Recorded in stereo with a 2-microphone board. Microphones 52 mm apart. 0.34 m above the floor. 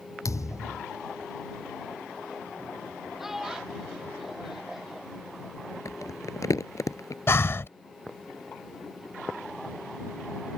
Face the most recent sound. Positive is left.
turn(degrees=50)  # may be behind; listen again after turning